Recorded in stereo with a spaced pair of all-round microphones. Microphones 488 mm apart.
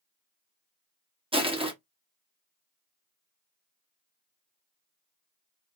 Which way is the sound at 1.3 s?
10° right (ahead or behind).